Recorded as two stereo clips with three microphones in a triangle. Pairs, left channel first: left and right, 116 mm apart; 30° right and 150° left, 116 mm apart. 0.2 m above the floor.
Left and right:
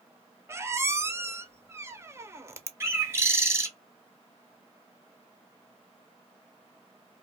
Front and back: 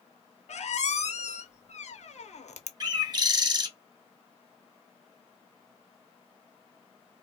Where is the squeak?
20° right, 0.5 m.